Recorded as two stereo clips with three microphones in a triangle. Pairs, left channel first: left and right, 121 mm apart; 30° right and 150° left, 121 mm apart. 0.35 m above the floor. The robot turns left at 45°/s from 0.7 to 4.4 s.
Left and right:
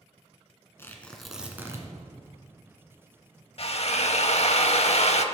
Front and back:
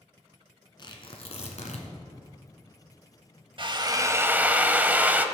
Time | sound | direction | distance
0.8 | tearing paper | 20° left | 1.5 m
3.6 | a drill | 115° left | 0.7 m